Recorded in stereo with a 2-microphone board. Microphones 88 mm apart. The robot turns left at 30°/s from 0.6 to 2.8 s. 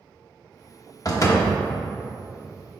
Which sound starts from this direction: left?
A door slam, at 1.1 s.